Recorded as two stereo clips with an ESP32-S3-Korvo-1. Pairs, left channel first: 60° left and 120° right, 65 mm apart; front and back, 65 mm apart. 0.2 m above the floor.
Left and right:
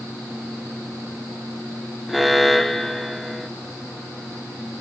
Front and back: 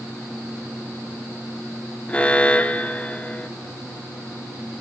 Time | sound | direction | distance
2.1 | an alarm | 30° right | 1.1 m